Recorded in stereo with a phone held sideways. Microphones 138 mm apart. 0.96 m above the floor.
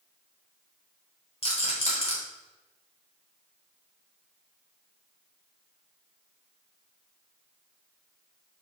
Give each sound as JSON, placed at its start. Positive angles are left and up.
{"t": 1.4, "sound": "a rattle", "side_deg": 45, "distance_m": 1.3}